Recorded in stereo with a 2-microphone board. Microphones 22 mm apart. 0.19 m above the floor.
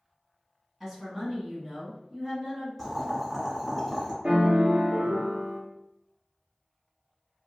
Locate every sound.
0.8 s a woman speaking: 20° right (ahead or behind), 1.9 m
2.8 s boiling: 5° left (ahead or behind), 1.2 m
4.2 s a piano: 60° right (ahead or behind), 1.0 m